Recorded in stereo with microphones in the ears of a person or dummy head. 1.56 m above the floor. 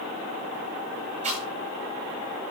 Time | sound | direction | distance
1.2 | chewing | 40° right (ahead or behind) | 8.5 m